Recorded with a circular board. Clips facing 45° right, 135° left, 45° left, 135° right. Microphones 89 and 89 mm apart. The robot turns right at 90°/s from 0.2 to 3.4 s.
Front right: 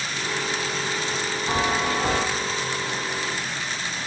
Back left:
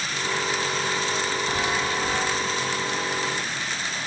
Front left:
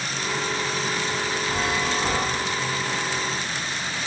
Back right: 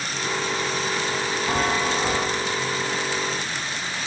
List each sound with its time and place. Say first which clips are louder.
1.5 s a chime: front right 6 dB, back right 4 dB; 110° right, 0.6 m; by 2.2 s 40° right, 0.6 m